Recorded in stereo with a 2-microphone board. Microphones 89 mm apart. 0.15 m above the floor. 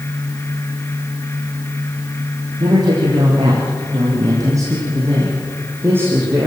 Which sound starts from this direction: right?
A man speaking, at 2.6 s.